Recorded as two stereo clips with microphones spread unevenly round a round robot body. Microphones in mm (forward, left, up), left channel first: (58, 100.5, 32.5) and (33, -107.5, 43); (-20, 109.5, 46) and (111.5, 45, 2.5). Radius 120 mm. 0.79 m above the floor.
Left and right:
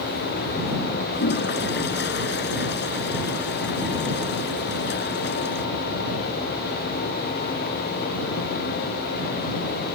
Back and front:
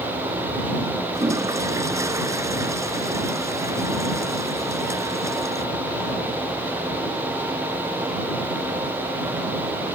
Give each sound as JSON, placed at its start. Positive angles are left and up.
{"t": 1.1, "sound": "a toilet flushing", "azimuth_deg": 45}